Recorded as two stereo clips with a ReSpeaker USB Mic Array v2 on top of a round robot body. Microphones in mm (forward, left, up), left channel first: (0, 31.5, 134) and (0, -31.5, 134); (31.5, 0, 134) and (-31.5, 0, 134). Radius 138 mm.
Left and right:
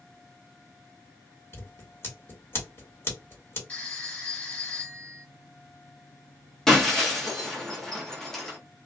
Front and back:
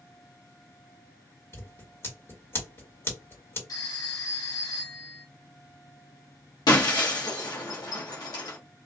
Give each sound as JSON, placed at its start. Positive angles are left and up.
{"t": 1.5, "sound": "scissors", "azimuth_deg": 45, "distance_m": 1.8}
{"t": 3.7, "sound": "a phone ringing", "azimuth_deg": 25, "distance_m": 1.0}
{"t": 6.7, "sound": "breaking glass", "azimuth_deg": 10, "distance_m": 0.7}